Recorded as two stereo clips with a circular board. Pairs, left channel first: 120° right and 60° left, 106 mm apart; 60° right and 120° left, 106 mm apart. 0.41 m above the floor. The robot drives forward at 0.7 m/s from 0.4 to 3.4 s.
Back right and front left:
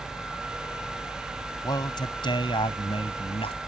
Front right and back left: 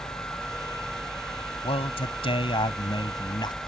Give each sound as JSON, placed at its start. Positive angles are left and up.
{"t": 1.6, "sound": "a man speaking", "azimuth_deg": -75}